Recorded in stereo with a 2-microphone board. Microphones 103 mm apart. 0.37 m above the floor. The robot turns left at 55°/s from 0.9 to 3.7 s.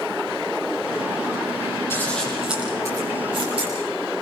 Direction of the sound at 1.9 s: 25° left (ahead or behind).